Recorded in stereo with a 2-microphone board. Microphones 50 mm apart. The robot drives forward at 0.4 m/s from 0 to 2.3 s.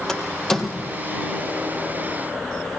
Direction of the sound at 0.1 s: 10° left (ahead or behind).